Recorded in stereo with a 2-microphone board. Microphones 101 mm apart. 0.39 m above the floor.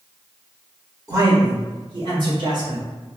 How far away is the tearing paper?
No tearing paper in this recording.